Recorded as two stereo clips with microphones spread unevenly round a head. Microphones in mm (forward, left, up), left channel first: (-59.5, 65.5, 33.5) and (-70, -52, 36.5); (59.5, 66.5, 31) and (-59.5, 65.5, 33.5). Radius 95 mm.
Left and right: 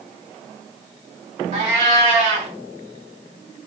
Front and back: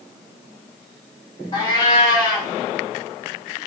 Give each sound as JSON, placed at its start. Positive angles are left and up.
{"t": 1.5, "sound": "a cat meowing", "azimuth_deg": -60, "distance_m": 0.5}